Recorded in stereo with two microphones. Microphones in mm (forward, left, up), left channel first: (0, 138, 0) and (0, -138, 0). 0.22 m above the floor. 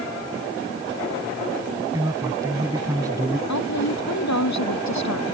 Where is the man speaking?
10° right (ahead or behind).